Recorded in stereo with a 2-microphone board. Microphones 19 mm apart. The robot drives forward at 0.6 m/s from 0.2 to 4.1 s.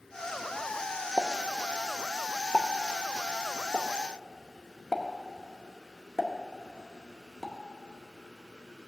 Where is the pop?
30° right (ahead or behind), 0.8 m; by 7.5 s 15° right (ahead or behind), 1.6 m.